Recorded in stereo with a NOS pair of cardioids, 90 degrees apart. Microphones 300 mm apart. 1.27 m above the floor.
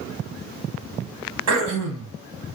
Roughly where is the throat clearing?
Right.